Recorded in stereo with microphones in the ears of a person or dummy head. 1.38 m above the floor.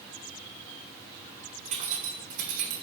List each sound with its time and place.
1.6 s keys jangling: 40° right (ahead or behind), 2.5 m; by 2.8 s 60° right (ahead or behind), 2 m